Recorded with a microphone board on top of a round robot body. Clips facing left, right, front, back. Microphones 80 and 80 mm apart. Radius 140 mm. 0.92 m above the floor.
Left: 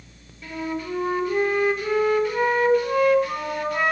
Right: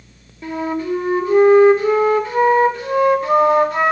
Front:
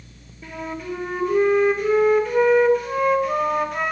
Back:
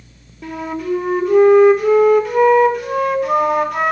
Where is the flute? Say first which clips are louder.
Right 7 dB, back 7 dB; 155° right, 3 m.